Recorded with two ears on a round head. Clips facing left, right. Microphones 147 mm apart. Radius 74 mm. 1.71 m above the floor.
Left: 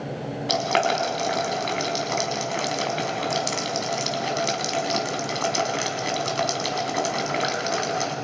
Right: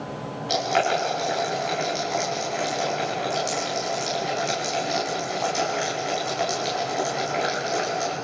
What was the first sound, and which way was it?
Boiling, 75° left (ahead or behind).